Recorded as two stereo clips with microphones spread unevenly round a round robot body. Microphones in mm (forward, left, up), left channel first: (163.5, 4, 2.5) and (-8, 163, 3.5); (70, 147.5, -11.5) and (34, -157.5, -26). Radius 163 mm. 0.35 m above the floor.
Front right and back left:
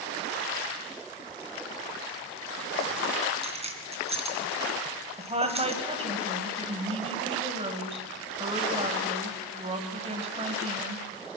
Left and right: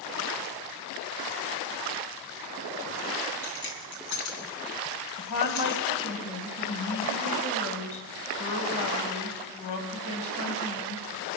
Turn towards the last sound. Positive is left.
turn(degrees=80)